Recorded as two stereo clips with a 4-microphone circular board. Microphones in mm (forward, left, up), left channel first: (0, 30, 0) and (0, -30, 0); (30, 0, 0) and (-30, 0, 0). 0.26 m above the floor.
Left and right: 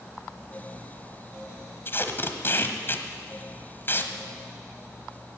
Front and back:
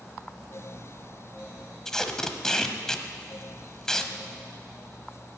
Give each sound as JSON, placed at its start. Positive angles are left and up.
{"t": 1.9, "sound": "tape being pulled", "azimuth_deg": 75, "distance_m": 1.1}